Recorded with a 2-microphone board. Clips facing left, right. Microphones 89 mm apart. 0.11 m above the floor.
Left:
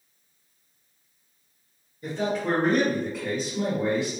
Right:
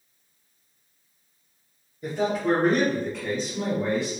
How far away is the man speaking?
About 1.6 m.